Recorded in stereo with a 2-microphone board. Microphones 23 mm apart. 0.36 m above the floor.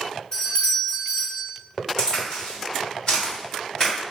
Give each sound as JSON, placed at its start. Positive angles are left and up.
{"t": 0.3, "sound": "a doorbell", "side_deg": 30, "distance_m": 1.4}
{"t": 2.0, "sound": "a crack", "side_deg": 25, "distance_m": 1.8}